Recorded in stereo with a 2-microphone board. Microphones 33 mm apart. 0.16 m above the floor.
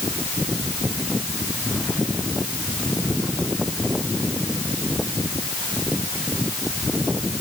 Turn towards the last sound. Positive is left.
No sound to turn to.